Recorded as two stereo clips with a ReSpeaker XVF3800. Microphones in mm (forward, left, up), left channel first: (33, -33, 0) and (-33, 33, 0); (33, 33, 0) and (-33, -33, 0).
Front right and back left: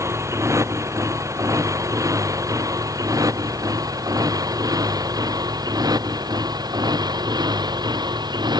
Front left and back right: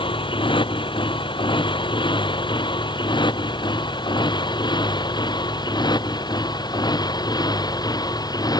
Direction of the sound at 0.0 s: 75° left.